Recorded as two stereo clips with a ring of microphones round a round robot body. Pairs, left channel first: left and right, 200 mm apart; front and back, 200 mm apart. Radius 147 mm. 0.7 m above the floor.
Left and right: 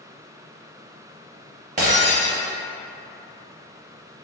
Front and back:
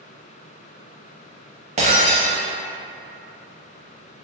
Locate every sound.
1.8 s breaking glass: 130° right, 0.6 m